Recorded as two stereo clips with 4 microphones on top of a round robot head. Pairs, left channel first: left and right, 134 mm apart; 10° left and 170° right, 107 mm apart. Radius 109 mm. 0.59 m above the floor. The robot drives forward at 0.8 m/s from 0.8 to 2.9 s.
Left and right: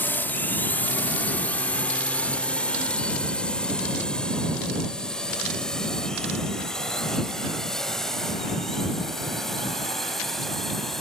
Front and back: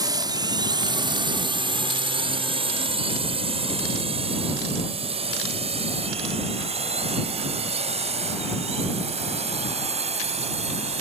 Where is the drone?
160° left; by 11.0 s straight behind.